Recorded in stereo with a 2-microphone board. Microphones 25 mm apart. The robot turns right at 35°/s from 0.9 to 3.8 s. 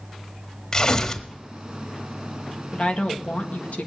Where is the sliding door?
I don't hear a sliding door.